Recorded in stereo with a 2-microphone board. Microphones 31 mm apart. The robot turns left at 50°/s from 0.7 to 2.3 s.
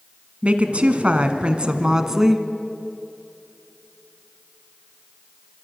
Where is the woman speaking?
85° right, 1.3 m; by 2.5 s 165° right, 1.3 m.